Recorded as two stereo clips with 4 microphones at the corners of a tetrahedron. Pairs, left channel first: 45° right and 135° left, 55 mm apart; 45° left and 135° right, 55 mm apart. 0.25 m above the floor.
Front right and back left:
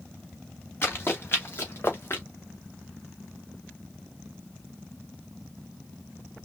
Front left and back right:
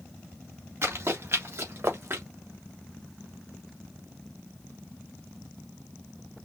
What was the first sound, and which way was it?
Running footsteps, 95° right.